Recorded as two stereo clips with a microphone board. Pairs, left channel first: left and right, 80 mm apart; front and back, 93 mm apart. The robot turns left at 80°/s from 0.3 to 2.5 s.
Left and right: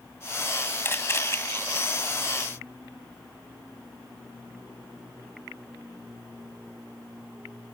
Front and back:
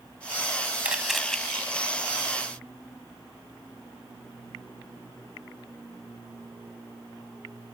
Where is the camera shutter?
115° left; by 1.4 s 75° left.